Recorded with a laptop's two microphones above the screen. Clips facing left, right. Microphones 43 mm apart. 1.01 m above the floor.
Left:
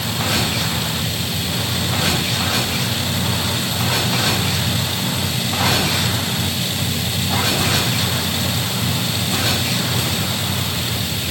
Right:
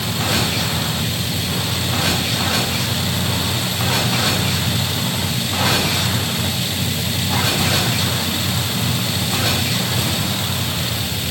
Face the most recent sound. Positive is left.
No sound to turn to.